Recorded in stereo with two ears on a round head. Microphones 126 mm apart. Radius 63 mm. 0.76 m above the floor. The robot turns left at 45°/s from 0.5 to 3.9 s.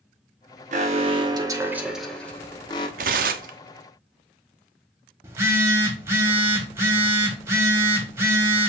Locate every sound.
0.7 s an alarm: 120° right, 0.8 m; by 2.9 s 145° left, 0.8 m
3.0 s tearing paper: 60° right (ahead or behind), 0.6 m; by 3.6 s 65° right (ahead or behind), 0.6 m
5.2 s a phone buzzing: 20° right (ahead or behind), 1.0 m